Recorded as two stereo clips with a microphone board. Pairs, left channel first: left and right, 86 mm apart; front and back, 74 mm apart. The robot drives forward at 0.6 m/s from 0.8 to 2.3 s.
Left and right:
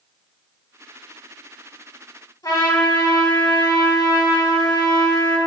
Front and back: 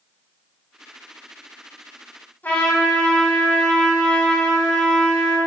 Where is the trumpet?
55° left, 2.5 m.